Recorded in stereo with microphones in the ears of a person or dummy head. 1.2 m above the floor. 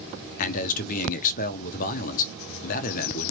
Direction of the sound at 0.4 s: 45° left (ahead or behind).